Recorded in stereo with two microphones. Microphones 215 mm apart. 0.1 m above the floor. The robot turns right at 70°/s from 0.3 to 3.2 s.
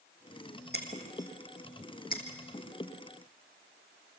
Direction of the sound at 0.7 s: 50° right (ahead or behind).